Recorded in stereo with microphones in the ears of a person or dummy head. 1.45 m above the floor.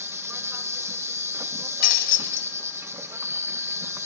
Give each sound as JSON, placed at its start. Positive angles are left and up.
{"t": 0.0, "sound": "an insect", "side_deg": -15, "distance_m": 1.0}
{"t": 1.8, "sound": "breaking glass", "side_deg": 50, "distance_m": 2.5}